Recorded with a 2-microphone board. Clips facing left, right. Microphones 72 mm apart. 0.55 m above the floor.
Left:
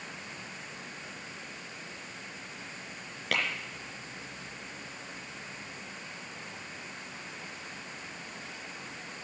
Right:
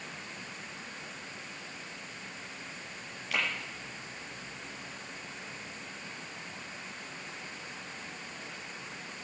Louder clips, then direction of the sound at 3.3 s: Left 2 dB; 65° left (ahead or behind).